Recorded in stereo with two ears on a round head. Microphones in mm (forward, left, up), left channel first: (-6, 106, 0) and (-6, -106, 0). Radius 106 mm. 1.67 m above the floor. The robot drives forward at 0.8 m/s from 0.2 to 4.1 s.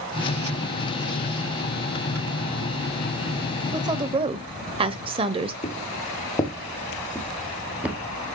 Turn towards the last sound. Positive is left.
turn(degrees=-10)  # may be behind; listen again after turning